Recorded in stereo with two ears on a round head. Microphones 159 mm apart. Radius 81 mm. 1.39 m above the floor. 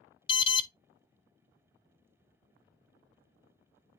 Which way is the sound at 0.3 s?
30° left (ahead or behind).